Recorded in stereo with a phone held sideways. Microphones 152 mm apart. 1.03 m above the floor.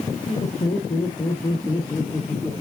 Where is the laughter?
50° left (ahead or behind), 3.5 m; by 2.5 s 10° left (ahead or behind), 2.5 m.